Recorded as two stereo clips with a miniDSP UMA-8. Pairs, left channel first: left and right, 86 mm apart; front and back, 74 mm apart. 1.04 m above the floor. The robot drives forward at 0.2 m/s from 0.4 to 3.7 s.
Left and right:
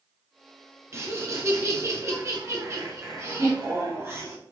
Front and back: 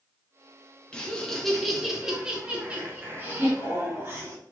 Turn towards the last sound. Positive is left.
turn(degrees=-140)